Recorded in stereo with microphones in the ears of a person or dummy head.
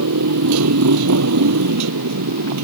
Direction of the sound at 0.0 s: 80° right.